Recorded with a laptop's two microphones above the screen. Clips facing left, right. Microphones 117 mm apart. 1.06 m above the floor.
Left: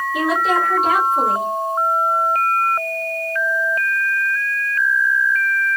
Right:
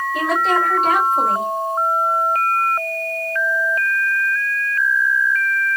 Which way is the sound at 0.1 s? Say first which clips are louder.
Even; 5° left (ahead or behind).